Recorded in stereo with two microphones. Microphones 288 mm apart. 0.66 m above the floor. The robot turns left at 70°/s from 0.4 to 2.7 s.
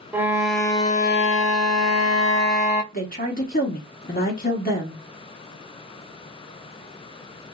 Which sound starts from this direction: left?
A woman speaking, at 2.9 s.